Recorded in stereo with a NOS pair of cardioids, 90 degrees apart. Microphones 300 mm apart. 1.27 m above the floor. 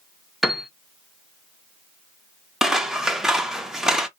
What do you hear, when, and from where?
0.4 s a piano: straight ahead, 0.6 m
2.6 s scissors: straight ahead, 0.5 m